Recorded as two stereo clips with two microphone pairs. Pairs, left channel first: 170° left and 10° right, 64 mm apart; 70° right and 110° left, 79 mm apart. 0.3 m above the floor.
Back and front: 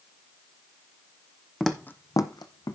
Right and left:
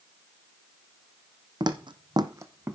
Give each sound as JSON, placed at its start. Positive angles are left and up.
{"t": 1.6, "sound": "footsteps", "azimuth_deg": 85, "distance_m": 0.8}